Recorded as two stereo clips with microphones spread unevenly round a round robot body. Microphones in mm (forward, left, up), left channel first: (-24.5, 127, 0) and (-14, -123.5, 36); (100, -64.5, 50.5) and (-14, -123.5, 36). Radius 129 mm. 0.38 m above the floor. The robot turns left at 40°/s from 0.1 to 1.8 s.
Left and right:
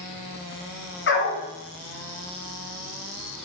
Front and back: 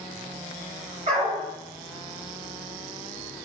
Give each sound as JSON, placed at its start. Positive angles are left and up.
{"t": 1.1, "sound": "a dog barking", "azimuth_deg": 140, "distance_m": 1.1}